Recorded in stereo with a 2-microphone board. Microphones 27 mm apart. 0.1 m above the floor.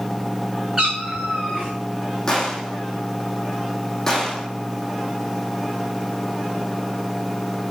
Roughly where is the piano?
No piano in this recording.